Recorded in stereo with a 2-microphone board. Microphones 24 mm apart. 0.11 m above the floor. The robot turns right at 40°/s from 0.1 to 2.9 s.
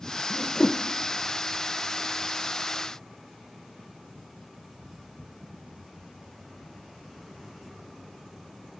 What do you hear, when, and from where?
0.3 s a whoosh: 70° left (ahead or behind), 1.2 m; by 0.8 s 80° left, 1.2 m